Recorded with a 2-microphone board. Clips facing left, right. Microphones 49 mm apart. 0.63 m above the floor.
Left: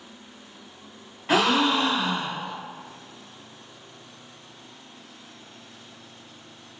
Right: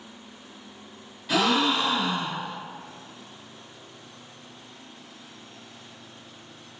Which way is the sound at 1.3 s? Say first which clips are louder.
Left 2 dB; 40° left (ahead or behind).